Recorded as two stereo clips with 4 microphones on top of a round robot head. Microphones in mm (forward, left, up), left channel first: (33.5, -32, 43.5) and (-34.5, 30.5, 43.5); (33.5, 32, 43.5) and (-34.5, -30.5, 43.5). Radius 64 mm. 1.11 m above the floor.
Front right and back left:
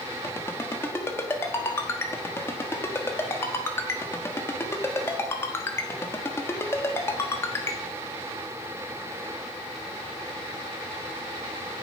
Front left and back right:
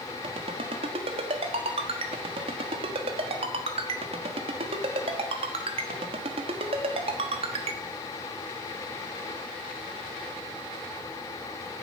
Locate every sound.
0.2 s a ringtone: 110° right, 1.3 m